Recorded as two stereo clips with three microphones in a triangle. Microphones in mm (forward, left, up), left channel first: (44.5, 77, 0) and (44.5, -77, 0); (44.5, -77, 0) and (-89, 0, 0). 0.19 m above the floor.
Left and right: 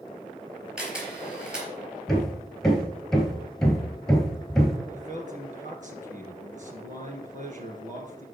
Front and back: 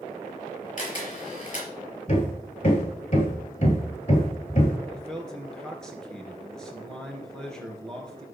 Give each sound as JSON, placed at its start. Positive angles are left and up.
{"t": 0.8, "sound": "a camera shutter", "azimuth_deg": -5, "distance_m": 4.0}
{"t": 2.1, "sound": "hammering", "azimuth_deg": 5, "distance_m": 2.5}
{"t": 4.9, "sound": "a man speaking", "azimuth_deg": -115, "distance_m": 2.5}